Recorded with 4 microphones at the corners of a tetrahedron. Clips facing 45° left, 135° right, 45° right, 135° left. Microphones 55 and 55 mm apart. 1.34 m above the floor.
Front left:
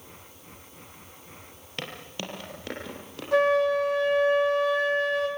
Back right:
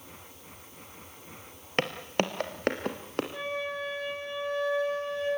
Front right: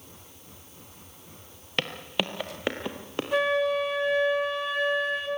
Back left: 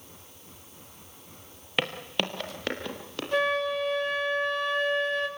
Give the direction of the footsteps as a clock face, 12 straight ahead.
5 o'clock.